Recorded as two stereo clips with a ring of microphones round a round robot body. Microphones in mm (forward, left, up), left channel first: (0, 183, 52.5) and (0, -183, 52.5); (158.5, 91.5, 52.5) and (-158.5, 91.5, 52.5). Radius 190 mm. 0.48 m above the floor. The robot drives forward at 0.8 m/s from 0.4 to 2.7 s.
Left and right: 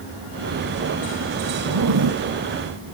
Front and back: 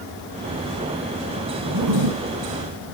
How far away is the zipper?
About 1.0 m.